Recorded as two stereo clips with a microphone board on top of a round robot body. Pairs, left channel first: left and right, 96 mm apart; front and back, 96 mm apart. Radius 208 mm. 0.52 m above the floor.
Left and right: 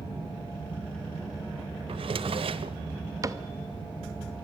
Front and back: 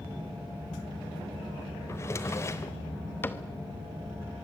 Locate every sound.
1.9 s a drawer: 65° right, 0.9 m
3.2 s a cupboard door: 55° right, 1.4 m